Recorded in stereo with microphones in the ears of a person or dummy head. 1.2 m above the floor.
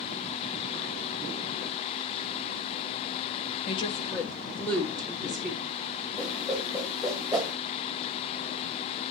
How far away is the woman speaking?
About 0.5 m.